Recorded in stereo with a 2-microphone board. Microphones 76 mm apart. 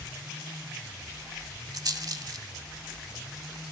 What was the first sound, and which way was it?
A rattle, 55° right (ahead or behind).